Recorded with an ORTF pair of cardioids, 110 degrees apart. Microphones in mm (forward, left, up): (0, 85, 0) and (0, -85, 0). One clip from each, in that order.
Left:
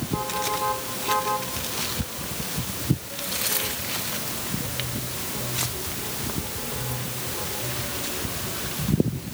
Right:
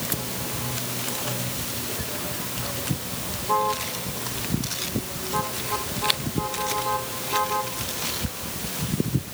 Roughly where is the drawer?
No drawer in this recording.